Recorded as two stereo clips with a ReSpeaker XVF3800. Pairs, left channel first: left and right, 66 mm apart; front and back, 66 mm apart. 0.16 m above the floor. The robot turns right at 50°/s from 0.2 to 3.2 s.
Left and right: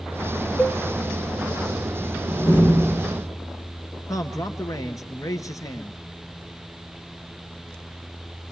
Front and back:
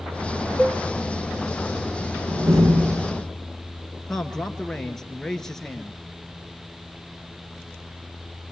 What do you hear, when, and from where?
0.6 s a cowbell: 50° left, 0.6 m; by 0.8 s 65° left, 0.6 m
2.3 s a door slam: 140° left, 7.5 m; by 3.2 s 170° right, 7.5 m
4.1 s a man speaking: 80° left, 3 m